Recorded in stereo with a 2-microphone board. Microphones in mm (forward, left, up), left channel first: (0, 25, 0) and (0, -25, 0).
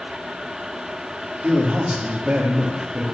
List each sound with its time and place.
1.4 s a man speaking: 30° right (ahead or behind), 4.5 m